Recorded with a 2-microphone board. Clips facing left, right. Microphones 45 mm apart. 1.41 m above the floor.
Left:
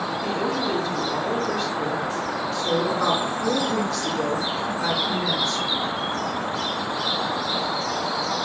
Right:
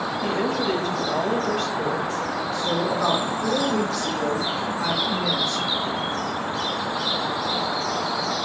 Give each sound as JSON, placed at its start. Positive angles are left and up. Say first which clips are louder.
{"t": 0.2, "sound": "a woman speaking", "louder": "right 2 dB", "side_deg": -55, "distance_m": 2.0}
{"t": 2.5, "sound": "a woman speaking", "louder": "left 1 dB", "side_deg": -5, "distance_m": 3.5}